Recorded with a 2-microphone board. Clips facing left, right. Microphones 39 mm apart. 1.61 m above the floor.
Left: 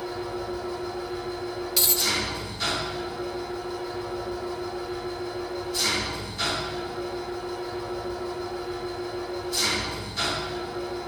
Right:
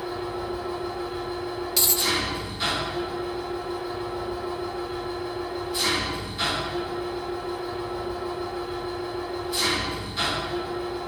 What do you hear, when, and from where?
0.0 s an engine running: 15° right (ahead or behind), 1.9 m
1.8 s a dropped coin: 5° left (ahead or behind), 1.2 m